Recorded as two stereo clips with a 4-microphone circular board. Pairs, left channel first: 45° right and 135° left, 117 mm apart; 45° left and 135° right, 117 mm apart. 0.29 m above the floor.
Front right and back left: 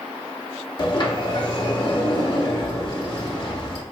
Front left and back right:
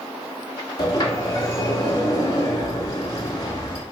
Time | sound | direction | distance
0.8 | a sliding door | 5° right | 0.7 m